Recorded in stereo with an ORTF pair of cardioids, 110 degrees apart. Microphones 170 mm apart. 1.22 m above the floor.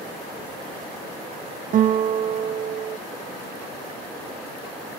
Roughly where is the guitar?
Ahead right.